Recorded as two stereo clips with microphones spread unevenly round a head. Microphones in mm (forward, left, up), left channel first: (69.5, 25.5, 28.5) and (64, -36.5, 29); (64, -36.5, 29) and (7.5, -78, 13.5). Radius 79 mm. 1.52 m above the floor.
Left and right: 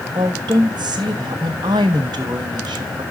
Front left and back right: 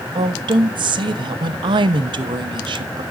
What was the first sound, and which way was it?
A woman speaking, 135° right.